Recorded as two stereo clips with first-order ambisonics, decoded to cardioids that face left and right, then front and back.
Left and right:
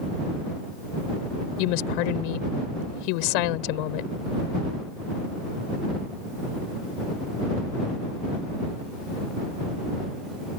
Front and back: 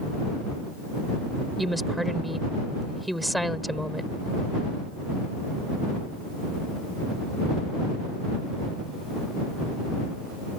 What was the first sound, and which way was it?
A woman speaking, 90° left.